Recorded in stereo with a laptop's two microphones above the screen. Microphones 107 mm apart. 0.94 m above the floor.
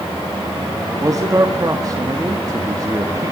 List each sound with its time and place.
1.0 s a man speaking: 35° right (ahead or behind), 1.8 m